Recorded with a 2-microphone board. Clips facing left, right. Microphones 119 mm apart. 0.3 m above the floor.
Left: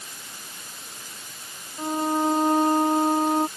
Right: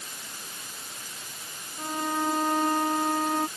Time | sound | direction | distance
1.8 | a violin | 25° left (ahead or behind) | ?